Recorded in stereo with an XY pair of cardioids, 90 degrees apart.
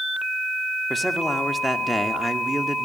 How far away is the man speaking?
About 2 m.